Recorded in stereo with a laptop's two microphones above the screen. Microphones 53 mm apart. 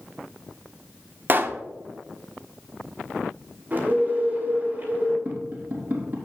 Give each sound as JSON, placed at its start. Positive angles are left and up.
{"t": 1.3, "sound": "a pop", "side_deg": -40, "distance_m": 0.7}
{"t": 3.7, "sound": "a bird", "side_deg": -35, "distance_m": 2.5}
{"t": 5.2, "sound": "tapping", "side_deg": -40, "distance_m": 4.0}